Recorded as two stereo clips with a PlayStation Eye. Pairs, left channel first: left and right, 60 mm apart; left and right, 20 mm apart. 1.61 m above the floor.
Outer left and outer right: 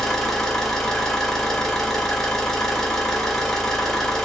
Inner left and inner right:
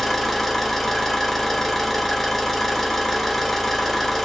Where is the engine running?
10° left (ahead or behind), 1.0 m.